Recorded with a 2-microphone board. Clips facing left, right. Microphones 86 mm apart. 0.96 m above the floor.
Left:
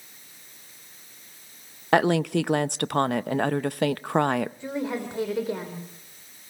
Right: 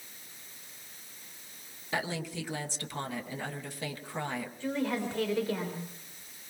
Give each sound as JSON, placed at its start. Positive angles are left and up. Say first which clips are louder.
{"t": 1.9, "sound": "a woman speaking", "louder": "left 14 dB", "side_deg": 65, "distance_m": 0.6}
{"t": 4.6, "sound": "a woman speaking", "louder": "left 2 dB", "side_deg": 20, "distance_m": 3.0}